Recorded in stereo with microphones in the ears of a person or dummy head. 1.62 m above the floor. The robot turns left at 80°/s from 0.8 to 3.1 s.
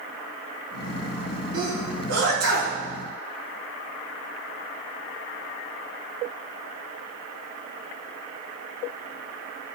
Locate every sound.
1.5 s a sneeze: 20° right (ahead or behind), 5 m; by 2.8 s 60° right (ahead or behind), 5 m